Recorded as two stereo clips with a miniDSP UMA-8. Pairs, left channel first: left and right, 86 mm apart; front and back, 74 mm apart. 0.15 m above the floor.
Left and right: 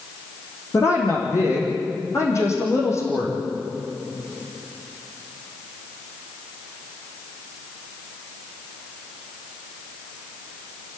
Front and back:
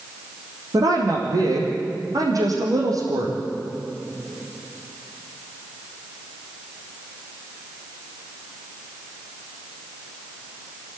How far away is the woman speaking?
About 5.5 m.